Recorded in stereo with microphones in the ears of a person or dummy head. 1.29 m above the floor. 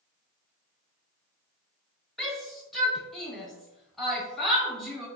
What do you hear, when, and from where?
2.2 s a shout: centre (ahead or behind), 1.2 m